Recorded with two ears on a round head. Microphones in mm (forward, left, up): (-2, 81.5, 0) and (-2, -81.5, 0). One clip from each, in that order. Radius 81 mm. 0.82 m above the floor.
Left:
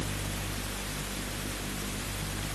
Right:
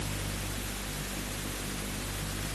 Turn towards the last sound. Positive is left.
No sound to turn to.